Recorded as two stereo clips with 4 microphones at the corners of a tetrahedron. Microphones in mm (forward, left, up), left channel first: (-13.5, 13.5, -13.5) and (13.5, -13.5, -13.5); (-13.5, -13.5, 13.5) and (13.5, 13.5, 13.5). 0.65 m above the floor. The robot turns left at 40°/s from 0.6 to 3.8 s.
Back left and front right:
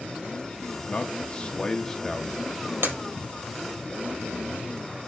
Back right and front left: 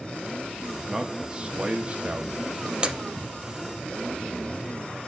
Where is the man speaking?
110° left, 1.0 m; by 2.5 s 45° left, 1.0 m.